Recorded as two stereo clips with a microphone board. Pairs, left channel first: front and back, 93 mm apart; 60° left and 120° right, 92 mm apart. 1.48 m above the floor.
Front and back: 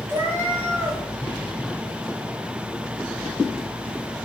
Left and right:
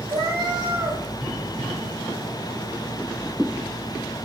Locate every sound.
0.1 s a cat meowing: 120° right, 1.3 m